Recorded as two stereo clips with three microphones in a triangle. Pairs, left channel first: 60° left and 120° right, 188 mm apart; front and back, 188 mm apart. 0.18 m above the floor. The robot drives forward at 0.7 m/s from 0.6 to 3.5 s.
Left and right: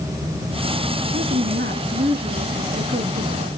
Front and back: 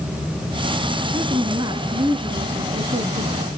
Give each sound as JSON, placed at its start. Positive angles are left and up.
{"t": 1.1, "sound": "a woman speaking", "azimuth_deg": -115, "distance_m": 2.5}